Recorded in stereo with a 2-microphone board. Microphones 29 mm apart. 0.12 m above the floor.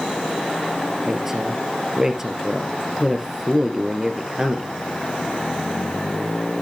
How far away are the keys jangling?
I don't hear keys jangling.